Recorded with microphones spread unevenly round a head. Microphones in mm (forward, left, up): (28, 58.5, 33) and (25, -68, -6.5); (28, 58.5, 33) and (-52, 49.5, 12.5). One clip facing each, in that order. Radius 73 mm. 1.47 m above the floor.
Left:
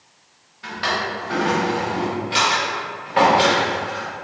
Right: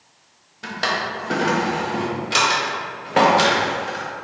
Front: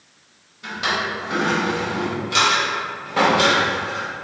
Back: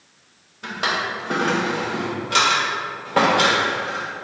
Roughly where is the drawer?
Behind right.